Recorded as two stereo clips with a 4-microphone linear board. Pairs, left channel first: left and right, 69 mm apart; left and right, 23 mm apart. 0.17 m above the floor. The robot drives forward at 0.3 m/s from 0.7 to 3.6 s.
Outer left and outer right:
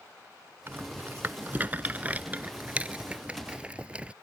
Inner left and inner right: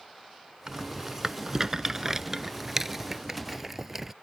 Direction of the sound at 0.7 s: 30° right (ahead or behind).